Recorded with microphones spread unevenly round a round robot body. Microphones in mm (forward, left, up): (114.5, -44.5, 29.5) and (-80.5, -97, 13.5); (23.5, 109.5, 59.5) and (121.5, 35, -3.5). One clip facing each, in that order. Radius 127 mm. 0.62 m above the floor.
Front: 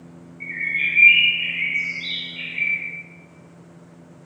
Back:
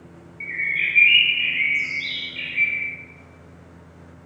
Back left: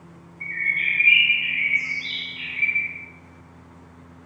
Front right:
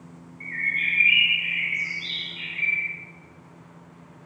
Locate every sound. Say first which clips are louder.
0.4 s a bird: even, back left 2 dB; 110° right, 1.0 m